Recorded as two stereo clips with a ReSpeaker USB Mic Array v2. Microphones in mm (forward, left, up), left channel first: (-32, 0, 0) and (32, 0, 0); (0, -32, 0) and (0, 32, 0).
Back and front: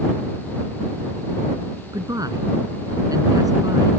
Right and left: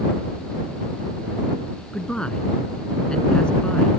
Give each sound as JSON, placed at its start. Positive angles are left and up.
{"t": 1.9, "sound": "a man speaking", "azimuth_deg": -15}